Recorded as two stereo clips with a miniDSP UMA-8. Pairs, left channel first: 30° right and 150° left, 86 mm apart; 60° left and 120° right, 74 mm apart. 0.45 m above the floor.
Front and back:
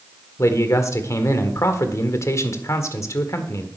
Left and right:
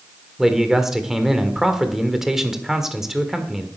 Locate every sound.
0.4 s a man speaking: 40° right, 1.6 m